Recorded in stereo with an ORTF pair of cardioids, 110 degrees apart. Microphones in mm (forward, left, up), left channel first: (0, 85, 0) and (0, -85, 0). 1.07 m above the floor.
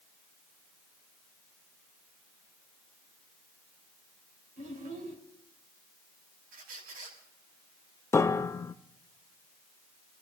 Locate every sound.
4.6 s a child speaking: 60° right, 5 m
6.5 s a squeak: 60° right, 5 m
8.1 s a piano: 15° left, 0.6 m